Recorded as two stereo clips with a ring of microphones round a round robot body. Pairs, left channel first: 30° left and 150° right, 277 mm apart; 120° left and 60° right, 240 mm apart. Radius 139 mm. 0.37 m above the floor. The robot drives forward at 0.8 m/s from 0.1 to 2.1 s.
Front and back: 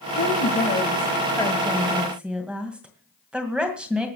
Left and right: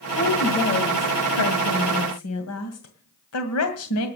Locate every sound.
0.2 s a woman speaking: 70° left, 1.8 m; by 4.1 s 125° left, 2 m